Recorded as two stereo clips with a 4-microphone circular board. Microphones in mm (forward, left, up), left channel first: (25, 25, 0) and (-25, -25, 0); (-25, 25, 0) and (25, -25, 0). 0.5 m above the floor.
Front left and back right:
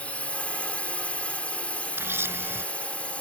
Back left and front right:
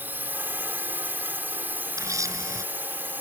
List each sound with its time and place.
0.0 s a drone: 10° right
2.0 s a camera shutter: 80° right